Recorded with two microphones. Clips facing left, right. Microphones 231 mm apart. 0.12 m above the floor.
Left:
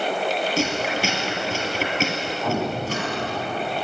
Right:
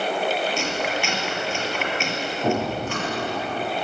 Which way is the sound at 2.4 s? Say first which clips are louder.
Right 2 dB; 40° right (ahead or behind).